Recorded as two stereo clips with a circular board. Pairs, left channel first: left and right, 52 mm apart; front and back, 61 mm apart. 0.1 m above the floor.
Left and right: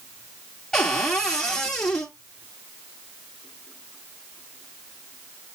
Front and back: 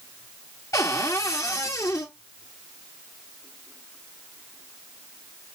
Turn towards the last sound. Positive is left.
turn(degrees=15)